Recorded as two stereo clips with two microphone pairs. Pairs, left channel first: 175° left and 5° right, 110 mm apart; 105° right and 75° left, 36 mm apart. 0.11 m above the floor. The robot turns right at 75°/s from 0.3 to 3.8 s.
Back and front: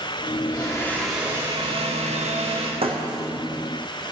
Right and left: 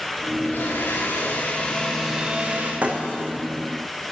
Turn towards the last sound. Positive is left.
turn(degrees=95)